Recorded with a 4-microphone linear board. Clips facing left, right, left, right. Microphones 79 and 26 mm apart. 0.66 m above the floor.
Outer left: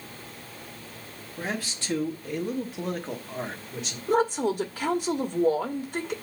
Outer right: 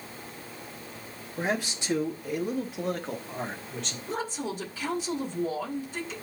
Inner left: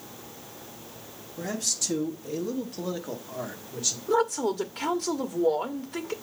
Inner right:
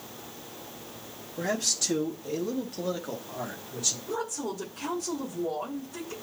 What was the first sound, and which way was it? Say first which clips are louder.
A man speaking: outer right 3 dB, inner right 2 dB; 20° right (ahead or behind).